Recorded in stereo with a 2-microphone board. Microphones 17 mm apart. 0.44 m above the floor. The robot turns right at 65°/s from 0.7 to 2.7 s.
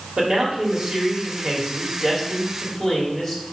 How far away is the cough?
I don't hear a cough.